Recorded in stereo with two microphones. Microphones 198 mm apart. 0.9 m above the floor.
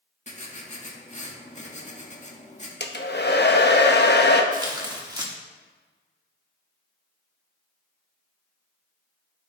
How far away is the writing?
About 1.5 m.